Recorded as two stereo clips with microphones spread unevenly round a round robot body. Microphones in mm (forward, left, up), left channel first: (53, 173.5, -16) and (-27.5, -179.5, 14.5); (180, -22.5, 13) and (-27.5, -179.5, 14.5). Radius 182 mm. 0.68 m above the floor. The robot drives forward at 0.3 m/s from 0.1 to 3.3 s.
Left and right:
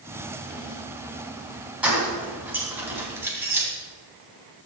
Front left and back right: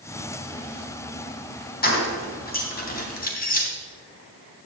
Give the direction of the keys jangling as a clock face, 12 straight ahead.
1 o'clock.